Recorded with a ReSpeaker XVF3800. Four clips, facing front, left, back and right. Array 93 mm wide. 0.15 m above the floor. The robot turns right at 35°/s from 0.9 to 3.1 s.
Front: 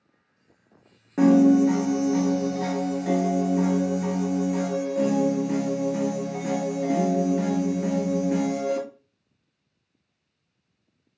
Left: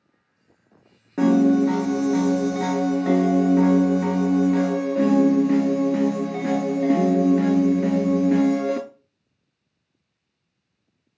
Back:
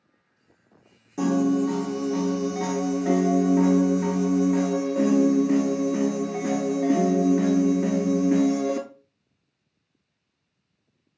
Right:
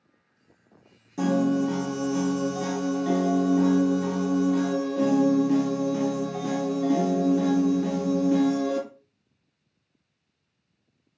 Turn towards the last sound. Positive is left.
turn(degrees=115)